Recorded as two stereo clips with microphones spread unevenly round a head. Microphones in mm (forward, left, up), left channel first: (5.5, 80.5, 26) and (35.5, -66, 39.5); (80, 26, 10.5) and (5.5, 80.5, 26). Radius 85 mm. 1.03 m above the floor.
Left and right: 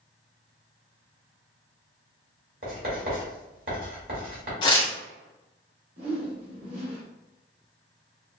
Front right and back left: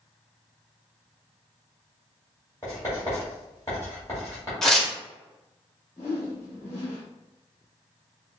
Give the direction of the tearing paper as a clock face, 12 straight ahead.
10 o'clock.